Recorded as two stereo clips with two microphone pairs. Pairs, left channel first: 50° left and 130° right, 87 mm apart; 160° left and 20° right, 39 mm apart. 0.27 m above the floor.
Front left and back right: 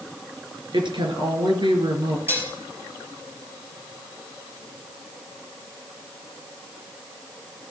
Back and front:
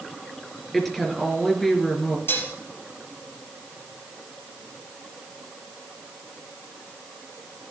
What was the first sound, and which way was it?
A woman speaking, 120° right.